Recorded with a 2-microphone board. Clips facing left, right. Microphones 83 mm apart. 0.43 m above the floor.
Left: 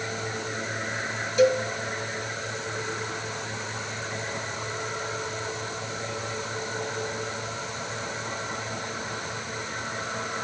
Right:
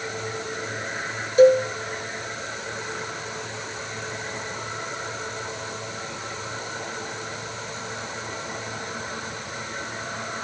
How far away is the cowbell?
About 1.6 m.